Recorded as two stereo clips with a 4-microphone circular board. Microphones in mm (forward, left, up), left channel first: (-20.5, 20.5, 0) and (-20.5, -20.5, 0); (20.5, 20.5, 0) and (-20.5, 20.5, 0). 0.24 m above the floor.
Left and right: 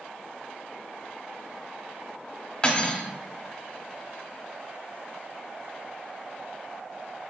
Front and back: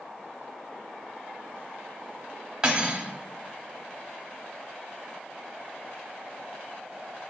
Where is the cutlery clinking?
130° left, 0.7 m.